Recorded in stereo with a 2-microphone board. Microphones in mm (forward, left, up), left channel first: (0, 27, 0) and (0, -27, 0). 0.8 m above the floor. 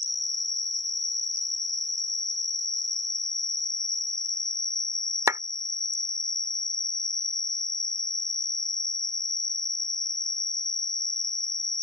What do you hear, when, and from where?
0.0 s an insect: 10° left (ahead or behind)
5.3 s a clap: 70° right (ahead or behind)